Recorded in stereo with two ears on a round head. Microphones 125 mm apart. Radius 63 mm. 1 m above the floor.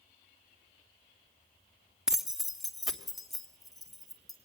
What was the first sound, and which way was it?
Keys jangling, 5° right (ahead or behind).